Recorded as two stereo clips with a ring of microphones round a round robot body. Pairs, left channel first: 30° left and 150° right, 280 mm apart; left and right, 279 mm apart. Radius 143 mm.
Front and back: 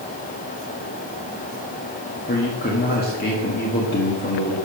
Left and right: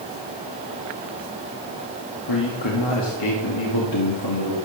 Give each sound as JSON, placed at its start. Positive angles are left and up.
{"t": 2.3, "sound": "a man speaking", "azimuth_deg": 90, "distance_m": 1.7}